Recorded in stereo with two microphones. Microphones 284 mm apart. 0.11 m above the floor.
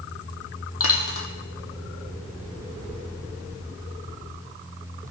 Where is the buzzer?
No buzzer in this recording.